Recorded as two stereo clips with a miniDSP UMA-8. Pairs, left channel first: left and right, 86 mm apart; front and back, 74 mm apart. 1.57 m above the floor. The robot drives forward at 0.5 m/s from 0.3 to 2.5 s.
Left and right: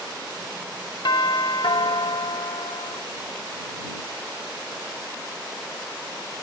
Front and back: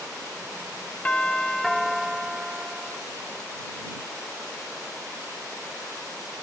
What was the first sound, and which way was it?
A doorbell, 70° left.